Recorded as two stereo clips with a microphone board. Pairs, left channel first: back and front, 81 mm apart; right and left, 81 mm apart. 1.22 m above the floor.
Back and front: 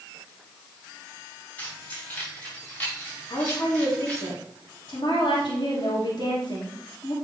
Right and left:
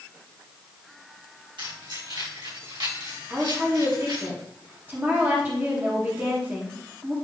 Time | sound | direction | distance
1.6 | keys jangling | 105° left | 4 m
3.3 | a woman speaking | 155° left | 2 m